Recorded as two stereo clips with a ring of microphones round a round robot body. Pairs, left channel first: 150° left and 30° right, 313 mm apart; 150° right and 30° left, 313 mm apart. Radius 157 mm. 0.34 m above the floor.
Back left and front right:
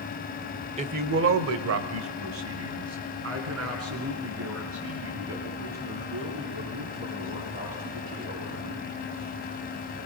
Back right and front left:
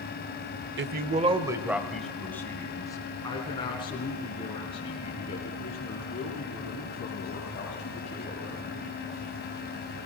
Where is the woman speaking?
25° left, 1.0 m; by 8.9 s 80° right, 10 m.